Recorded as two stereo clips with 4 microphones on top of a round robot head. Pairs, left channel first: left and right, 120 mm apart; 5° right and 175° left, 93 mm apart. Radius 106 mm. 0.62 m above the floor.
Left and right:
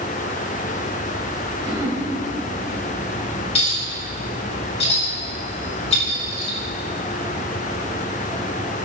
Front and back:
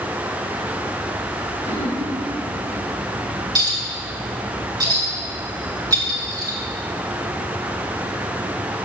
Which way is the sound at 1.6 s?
35° right.